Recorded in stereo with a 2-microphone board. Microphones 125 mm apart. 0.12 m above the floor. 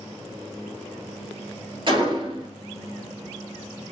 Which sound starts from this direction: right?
A gunshot, at 1.9 s.